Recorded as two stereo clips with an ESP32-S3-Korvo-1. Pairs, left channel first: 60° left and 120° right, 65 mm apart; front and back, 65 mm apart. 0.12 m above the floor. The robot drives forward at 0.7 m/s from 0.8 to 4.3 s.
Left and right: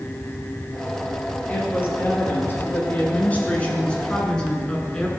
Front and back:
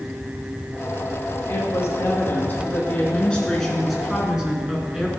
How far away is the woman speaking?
About 2.5 m.